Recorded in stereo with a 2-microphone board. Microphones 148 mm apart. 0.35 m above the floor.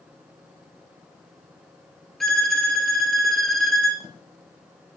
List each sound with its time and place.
2.2 s a violin: centre (ahead or behind), 1.1 m